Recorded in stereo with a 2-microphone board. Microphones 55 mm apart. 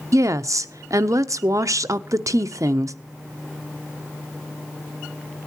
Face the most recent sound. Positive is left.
turn(degrees=-65)  # may be behind; listen again after turning